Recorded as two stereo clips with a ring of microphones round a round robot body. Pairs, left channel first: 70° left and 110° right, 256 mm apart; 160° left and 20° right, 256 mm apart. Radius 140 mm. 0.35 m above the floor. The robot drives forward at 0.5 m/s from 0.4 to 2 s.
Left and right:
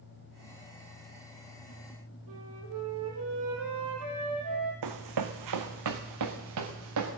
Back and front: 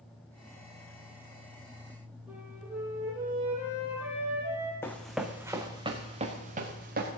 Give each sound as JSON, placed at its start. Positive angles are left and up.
{"t": 2.3, "sound": "a flute", "azimuth_deg": -105, "distance_m": 5.5}
{"t": 4.8, "sound": "running footsteps", "azimuth_deg": -120, "distance_m": 1.9}